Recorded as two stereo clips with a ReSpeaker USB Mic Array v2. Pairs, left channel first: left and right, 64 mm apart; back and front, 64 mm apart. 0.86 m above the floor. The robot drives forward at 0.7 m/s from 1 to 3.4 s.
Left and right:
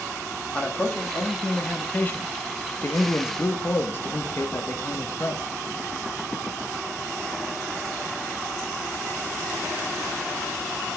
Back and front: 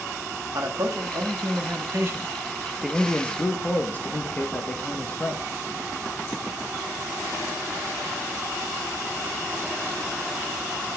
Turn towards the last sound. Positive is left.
turn(degrees=130)